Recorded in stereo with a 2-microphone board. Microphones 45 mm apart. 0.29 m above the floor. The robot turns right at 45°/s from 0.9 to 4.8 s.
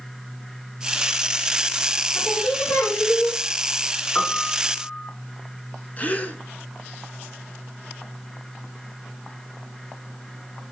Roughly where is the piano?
Left.